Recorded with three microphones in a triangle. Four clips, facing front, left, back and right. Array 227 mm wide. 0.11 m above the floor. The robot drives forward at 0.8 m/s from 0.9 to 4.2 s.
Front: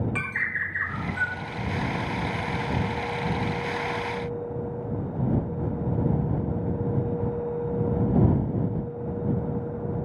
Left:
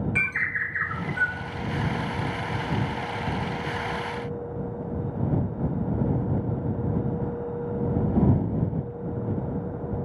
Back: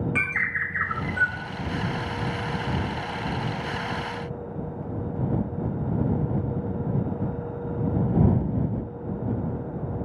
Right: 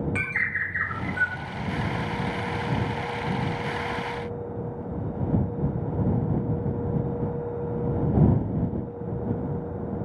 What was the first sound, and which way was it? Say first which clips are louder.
A bird: even, back 2 dB; 140° right.